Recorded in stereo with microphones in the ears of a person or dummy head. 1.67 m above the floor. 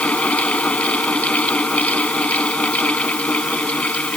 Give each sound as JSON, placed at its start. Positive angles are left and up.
{"t": 0.0, "sound": "a fan", "side_deg": 10}